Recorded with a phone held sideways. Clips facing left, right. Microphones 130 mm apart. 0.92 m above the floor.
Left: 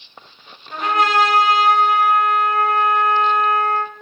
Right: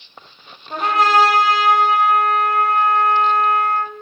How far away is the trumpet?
About 1.0 m.